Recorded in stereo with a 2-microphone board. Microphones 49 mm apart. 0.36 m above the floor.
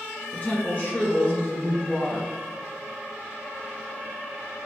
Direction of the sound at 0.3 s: 30° left (ahead or behind).